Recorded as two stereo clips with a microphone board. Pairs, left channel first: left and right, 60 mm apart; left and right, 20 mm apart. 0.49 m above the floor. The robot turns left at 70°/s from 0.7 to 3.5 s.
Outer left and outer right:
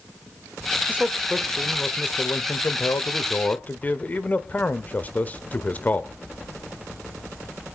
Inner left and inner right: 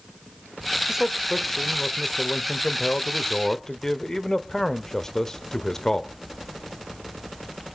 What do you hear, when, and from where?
0.9 s a man speaking: 145° right, 1.3 m; by 6.1 s 35° left, 1.3 m